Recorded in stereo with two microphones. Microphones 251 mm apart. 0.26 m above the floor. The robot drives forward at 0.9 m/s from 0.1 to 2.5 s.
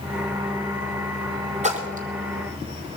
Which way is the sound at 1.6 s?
30° right (ahead or behind).